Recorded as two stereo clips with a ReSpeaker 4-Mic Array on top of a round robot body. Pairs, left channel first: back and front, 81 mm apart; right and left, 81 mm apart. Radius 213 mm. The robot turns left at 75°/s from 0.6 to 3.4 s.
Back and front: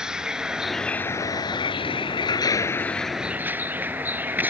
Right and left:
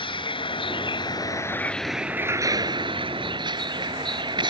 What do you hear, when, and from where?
0.0 s a vehicle: 80° right; by 4.5 s 70° left